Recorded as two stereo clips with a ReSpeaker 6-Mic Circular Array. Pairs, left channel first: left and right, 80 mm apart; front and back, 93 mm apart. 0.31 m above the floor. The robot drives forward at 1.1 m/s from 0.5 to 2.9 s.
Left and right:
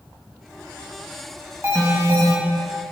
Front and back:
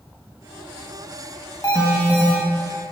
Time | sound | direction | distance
1.6 | an alarm | 40° right | 2.0 m